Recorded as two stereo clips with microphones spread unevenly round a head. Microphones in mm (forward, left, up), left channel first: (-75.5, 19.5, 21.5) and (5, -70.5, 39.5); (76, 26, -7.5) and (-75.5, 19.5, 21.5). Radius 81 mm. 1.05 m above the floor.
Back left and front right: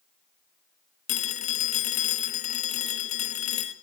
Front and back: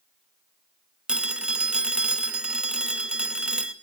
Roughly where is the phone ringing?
Left.